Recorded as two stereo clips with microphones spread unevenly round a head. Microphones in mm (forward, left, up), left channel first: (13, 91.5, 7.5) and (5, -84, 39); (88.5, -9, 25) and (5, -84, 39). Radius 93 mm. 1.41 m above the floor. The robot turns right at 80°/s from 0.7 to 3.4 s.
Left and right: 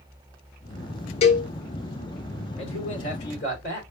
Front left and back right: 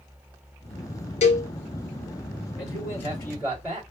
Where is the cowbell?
30° left, 0.9 m; by 1.5 s 50° left, 0.9 m.